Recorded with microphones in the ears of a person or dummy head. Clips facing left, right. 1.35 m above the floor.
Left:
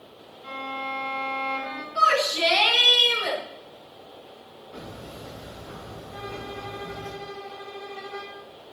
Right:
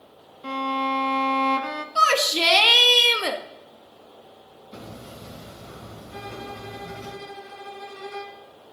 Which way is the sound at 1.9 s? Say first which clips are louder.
Even; 75° right (ahead or behind).